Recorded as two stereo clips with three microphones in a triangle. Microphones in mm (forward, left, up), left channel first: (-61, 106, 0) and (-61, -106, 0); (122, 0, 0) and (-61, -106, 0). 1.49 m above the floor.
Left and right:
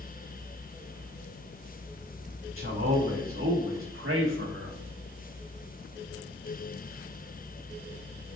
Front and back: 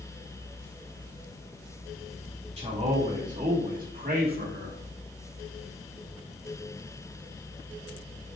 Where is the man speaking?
90° right, 2.5 m; by 4.8 s 110° right, 1.9 m.